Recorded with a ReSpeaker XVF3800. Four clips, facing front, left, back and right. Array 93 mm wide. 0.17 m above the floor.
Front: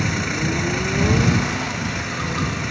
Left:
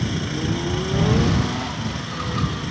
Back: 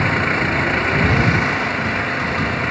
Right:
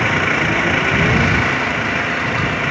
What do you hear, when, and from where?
0.0 s an engine running: 125° right